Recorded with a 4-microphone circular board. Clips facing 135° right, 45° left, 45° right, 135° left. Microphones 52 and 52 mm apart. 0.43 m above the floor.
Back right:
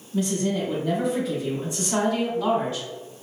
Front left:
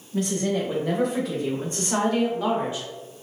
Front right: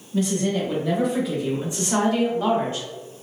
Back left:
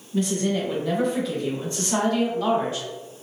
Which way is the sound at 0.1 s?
45° left.